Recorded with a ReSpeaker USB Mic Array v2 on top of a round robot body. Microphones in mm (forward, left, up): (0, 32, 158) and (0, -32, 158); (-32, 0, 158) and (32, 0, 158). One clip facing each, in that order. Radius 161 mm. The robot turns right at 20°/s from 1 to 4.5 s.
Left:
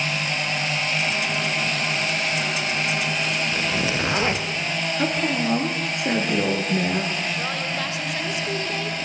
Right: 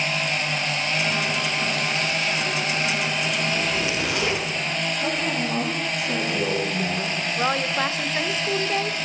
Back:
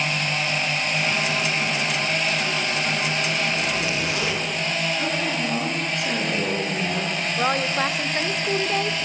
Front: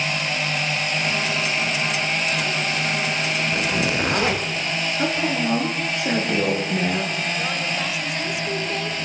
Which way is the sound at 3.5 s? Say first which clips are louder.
Left 1 dB, front 2 dB; 25° left.